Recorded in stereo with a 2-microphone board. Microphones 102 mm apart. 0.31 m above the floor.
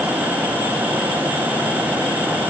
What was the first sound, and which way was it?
Only background noise.